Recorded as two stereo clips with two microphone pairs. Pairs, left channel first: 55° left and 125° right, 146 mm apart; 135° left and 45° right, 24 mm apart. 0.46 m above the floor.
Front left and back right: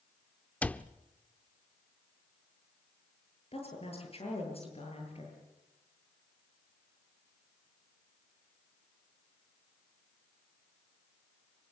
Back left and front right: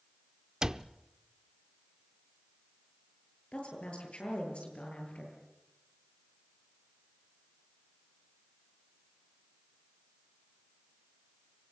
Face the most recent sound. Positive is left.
turn(degrees=100)